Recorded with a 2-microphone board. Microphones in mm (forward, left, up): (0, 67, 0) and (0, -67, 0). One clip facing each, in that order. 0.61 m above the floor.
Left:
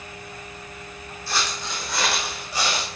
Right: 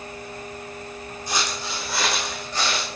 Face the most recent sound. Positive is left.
turn(degrees=15)  # may be behind; listen again after turning